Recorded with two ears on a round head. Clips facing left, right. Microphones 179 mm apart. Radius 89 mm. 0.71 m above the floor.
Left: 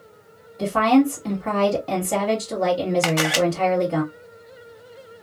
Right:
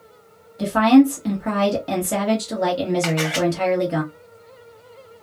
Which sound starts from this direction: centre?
A woman speaking, at 0.6 s.